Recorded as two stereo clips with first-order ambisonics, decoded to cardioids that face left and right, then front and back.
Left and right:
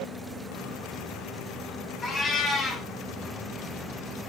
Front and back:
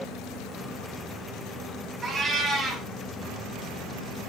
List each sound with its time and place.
2.0 s a cat meowing: 140° left, 1.0 m